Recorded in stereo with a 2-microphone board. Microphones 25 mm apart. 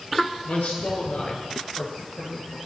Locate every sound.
0.5 s a man speaking: 80° left, 7 m